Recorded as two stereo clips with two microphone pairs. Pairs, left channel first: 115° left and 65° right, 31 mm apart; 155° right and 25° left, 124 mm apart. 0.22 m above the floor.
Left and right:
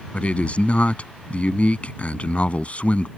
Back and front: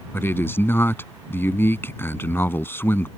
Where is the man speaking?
140° left.